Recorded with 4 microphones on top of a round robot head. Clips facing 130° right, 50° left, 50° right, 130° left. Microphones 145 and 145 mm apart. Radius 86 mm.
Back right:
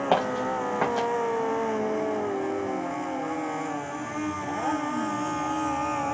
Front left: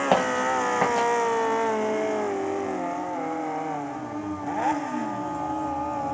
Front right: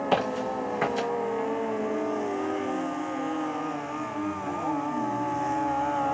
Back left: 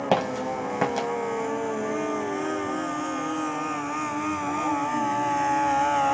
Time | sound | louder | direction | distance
0.1 | footsteps | front left 2 dB, back left 2 dB | 130° left | 1.9 m